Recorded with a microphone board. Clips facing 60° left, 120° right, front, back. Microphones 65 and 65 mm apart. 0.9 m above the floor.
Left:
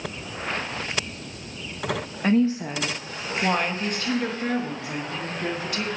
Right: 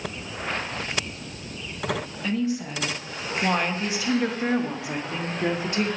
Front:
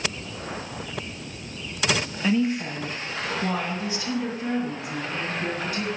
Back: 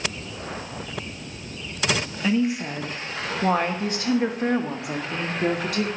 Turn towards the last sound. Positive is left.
turn(degrees=180)